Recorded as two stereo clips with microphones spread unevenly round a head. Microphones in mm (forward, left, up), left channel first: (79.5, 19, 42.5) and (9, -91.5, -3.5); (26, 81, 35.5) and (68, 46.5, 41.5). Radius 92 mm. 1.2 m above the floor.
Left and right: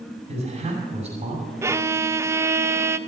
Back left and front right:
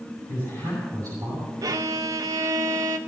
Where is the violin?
45° right, 0.7 m.